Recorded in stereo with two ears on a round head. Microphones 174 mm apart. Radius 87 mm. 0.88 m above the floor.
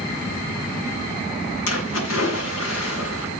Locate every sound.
1.7 s a splash: 80° left, 7 m